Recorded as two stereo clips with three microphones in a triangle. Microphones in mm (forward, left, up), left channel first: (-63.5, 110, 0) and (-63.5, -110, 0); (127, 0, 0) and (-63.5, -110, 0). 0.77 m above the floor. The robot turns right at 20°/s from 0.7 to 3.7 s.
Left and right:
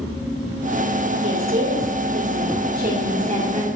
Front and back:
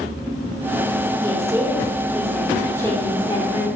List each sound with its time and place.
1.2 s a woman speaking: 80° right, 2 m; by 3.8 s 30° right, 2 m